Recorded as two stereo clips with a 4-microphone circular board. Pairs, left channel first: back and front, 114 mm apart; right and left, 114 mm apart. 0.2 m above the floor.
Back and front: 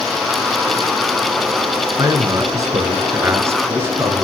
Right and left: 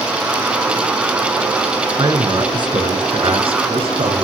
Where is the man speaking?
50° left, 3 m; by 4.2 s 70° left, 4 m.